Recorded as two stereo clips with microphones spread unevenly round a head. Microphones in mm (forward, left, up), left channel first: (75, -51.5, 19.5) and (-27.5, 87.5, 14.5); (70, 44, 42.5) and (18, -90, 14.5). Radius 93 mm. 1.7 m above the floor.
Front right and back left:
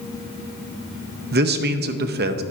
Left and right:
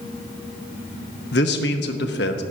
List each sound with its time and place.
1.3 s a man speaking: 95° left, 0.8 m